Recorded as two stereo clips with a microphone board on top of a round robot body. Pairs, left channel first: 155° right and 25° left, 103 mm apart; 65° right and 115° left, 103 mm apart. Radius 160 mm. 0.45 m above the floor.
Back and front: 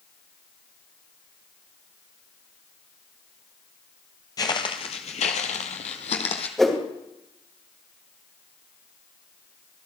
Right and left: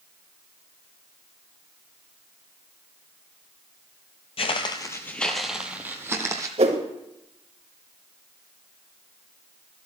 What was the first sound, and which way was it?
Footsteps, 100° right.